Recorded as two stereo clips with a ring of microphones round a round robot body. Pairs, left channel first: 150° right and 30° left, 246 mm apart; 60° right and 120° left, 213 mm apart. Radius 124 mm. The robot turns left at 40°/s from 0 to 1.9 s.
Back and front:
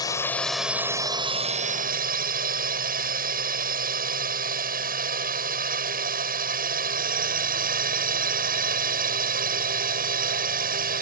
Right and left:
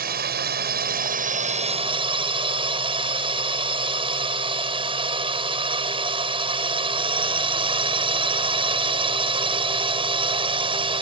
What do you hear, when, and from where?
0.0 s a drone: 140° left; by 11.0 s 65° left